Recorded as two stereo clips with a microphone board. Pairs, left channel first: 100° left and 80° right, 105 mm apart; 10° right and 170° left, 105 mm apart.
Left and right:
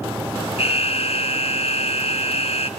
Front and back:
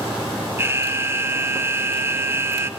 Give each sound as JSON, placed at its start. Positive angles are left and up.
{"t": 0.6, "sound": "an alarm", "azimuth_deg": 105, "distance_m": 0.8}